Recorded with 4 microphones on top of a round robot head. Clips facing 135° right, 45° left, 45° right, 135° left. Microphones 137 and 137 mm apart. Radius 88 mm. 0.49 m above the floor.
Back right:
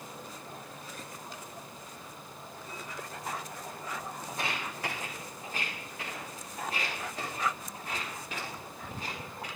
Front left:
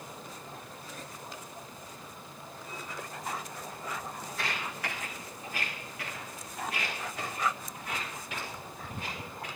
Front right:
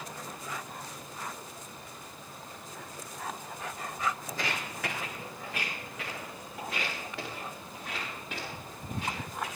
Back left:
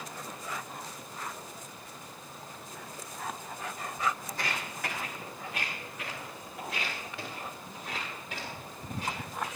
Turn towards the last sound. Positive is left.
turn(degrees=-80)